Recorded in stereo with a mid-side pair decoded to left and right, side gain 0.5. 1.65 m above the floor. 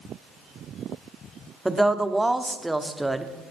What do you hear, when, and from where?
1.6 s a woman speaking: 10° right, 1.2 m